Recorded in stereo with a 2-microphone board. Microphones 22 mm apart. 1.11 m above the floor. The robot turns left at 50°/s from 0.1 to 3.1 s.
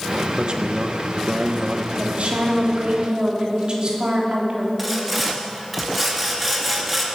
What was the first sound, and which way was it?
A man speaking, 65° right.